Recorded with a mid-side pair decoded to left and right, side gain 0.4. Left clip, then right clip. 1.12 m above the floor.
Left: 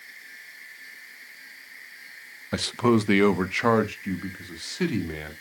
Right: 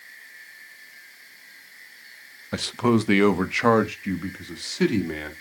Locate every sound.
2.5 s a man speaking: 10° left, 0.7 m; by 5.3 s 25° right, 2.5 m